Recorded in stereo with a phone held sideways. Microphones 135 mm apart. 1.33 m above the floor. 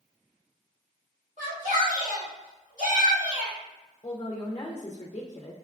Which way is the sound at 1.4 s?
65° right (ahead or behind).